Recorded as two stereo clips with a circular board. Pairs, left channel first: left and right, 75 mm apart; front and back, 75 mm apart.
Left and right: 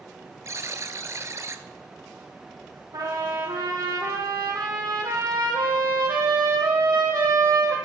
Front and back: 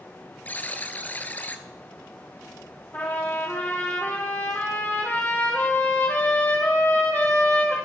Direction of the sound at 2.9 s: 60° right.